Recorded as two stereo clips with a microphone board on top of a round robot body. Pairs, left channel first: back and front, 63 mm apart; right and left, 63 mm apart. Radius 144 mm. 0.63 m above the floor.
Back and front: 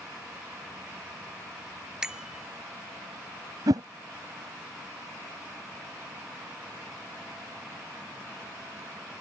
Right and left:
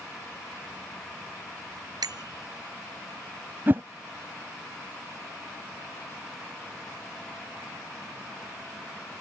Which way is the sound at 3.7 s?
30° left.